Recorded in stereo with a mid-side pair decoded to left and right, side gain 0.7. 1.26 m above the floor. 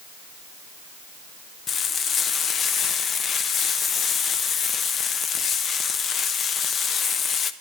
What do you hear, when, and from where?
1.7 s frying: 35° left, 0.5 m